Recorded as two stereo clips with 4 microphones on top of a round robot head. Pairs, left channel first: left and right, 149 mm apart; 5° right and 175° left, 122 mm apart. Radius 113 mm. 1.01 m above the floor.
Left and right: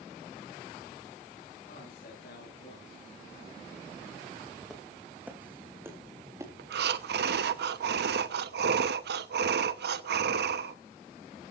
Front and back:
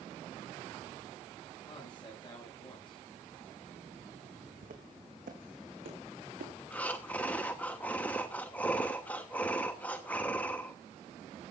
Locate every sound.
1.6 s a man speaking: 45° left, 6.5 m
4.6 s footsteps: straight behind, 3.5 m; by 6.5 s 160° right, 5 m
6.6 s breathing: 85° right, 0.9 m